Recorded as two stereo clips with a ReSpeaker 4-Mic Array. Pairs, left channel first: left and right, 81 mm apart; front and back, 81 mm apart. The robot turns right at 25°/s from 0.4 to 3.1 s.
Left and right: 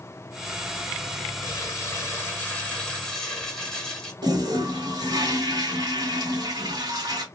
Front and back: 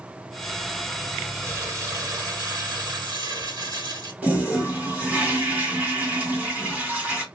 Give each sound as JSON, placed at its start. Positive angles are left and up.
{"t": 1.4, "sound": "crumpling", "azimuth_deg": 130, "distance_m": 1.7}
{"t": 4.2, "sound": "a toilet flushing", "azimuth_deg": -115, "distance_m": 1.5}